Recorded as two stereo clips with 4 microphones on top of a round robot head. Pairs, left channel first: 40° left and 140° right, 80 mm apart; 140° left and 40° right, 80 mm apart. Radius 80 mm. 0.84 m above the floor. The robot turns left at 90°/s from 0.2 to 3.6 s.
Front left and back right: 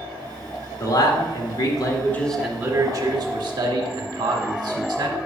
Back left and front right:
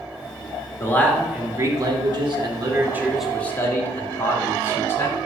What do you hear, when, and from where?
0.8 s a man speaking: 90° left, 2.0 m; by 5.2 s 160° right, 2.0 m